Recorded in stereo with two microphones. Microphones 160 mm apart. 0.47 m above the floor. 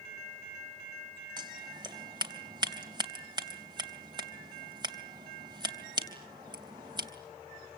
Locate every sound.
1.4 s scissors: 30° right (ahead or behind), 3 m